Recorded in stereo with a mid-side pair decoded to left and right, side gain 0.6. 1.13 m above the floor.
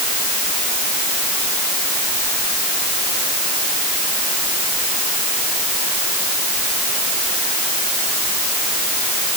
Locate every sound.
Only background noise.